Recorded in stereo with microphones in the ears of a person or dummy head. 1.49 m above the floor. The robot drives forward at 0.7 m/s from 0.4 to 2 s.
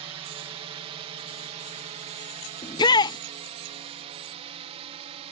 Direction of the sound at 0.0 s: 30° right (ahead or behind).